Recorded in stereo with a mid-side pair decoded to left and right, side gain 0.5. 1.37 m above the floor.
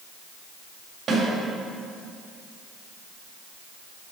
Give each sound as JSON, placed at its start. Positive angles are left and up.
{"t": 1.1, "sound": "a snare drum", "azimuth_deg": -50, "distance_m": 2.5}